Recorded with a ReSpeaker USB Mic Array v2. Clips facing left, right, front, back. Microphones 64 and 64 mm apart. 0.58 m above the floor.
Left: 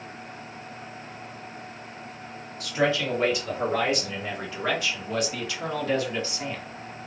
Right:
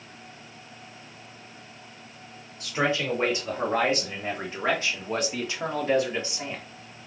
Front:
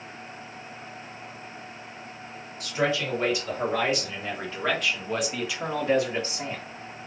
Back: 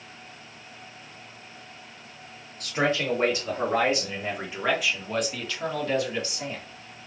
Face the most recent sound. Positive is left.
turn(degrees=-25)